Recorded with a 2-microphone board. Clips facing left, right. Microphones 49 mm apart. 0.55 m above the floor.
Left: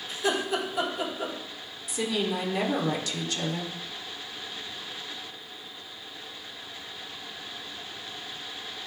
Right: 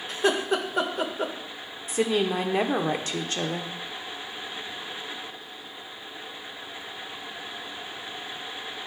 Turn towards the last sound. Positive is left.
turn(degrees=-40)  # may be behind; listen again after turning